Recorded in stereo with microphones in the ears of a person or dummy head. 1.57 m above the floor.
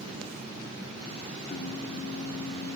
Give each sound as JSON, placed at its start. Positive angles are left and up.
{"t": 1.5, "sound": "singing", "side_deg": 55, "distance_m": 1.0}